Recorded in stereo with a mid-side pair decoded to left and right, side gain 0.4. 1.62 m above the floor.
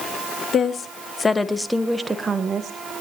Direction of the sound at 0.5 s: 60° left.